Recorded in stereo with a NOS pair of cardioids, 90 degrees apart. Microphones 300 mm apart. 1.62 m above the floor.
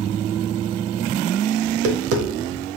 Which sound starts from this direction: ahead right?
Tapping, at 1.6 s.